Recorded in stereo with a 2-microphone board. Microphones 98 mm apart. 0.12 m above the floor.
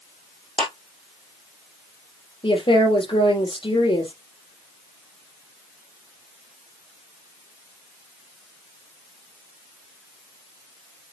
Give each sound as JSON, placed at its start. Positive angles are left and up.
{"t": 0.6, "sound": "a clap", "side_deg": 65, "distance_m": 6.0}
{"t": 2.4, "sound": "a woman speaking", "side_deg": 60, "distance_m": 4.0}